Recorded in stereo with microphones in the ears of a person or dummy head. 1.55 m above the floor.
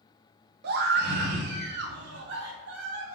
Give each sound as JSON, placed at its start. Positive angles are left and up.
{"t": 0.6, "sound": "a scream", "side_deg": -60, "distance_m": 2.0}